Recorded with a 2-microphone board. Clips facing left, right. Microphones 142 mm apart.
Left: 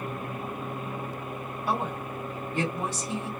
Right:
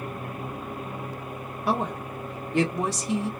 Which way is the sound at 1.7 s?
80° right.